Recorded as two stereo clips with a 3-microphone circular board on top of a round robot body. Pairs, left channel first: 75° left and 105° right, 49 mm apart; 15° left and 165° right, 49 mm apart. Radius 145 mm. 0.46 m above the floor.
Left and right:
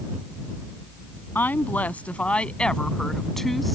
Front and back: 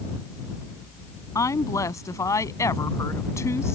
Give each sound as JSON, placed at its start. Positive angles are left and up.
{"t": 1.4, "sound": "a woman speaking", "azimuth_deg": 20}